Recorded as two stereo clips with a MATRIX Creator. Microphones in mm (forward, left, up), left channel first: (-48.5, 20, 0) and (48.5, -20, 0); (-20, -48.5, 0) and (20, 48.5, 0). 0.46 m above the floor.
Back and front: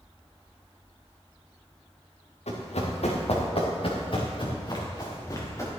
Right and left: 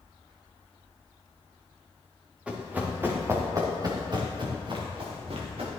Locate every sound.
2.5 s running footsteps: 145° left, 3 m; by 5.7 s 95° left, 3.5 m